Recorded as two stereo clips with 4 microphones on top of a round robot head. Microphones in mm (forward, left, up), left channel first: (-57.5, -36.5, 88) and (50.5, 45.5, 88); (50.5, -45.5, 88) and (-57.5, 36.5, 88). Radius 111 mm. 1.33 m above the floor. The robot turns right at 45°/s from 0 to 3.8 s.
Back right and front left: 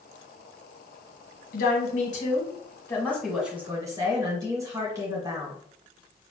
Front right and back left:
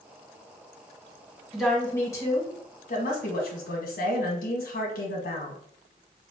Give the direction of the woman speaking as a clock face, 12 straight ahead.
4 o'clock.